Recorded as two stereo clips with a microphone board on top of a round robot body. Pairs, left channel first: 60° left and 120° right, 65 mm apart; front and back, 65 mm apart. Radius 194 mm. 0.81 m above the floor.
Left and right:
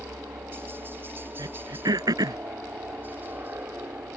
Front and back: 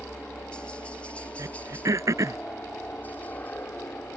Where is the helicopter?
75° right; by 4.2 s 60° right.